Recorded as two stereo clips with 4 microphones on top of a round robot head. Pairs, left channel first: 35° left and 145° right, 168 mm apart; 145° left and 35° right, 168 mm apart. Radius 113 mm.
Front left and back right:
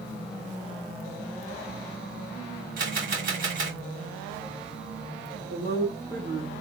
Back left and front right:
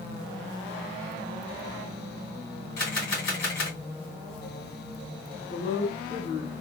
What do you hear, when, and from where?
2.8 s a camera shutter: 175° left, 3 m
5.5 s a woman speaking: 170° left, 2 m